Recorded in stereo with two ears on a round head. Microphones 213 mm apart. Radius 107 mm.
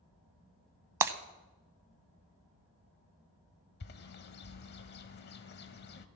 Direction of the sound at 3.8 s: 45° left (ahead or behind).